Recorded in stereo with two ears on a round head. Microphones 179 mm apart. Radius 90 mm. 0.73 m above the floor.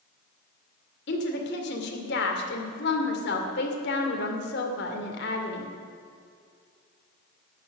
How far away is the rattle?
I don't hear a rattle.